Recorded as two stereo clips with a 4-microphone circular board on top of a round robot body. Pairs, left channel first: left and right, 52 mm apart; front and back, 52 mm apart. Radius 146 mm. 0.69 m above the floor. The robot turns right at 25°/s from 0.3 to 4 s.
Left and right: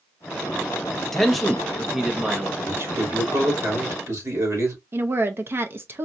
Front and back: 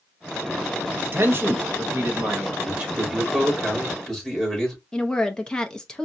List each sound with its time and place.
1.1 s a man speaking: 175° left, 1.3 m; by 2.5 s 150° right, 1.3 m
2.6 s a man speaking: 120° right, 2.5 m; by 4.8 s 85° right, 2.5 m
4.9 s a woman speaking: 70° right, 0.7 m